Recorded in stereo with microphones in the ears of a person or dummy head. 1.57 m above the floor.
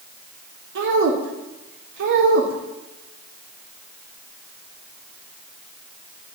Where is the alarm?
No alarm in this recording.